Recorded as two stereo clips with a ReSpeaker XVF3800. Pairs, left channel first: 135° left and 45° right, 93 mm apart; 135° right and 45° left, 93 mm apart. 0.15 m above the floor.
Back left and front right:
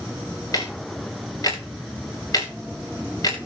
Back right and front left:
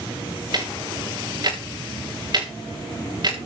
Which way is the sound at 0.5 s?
85° left.